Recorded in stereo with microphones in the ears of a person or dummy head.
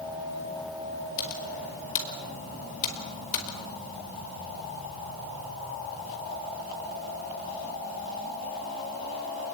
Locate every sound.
1.2 s typing on a keyboard: 45° left (ahead or behind), 5 m